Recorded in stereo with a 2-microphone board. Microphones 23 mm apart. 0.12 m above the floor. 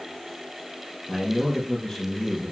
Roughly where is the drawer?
I don't hear a drawer.